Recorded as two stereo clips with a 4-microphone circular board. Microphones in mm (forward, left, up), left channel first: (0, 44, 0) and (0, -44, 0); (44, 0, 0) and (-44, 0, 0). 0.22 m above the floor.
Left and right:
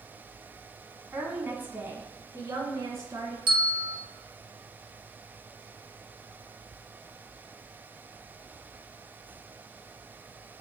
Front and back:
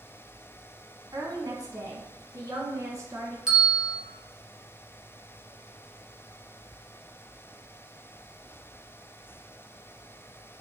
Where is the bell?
100° right, 1.6 m.